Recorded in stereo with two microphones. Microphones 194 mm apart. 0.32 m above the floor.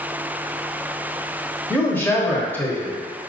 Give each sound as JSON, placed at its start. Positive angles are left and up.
{"t": 1.7, "sound": "a man speaking", "side_deg": 10, "distance_m": 0.9}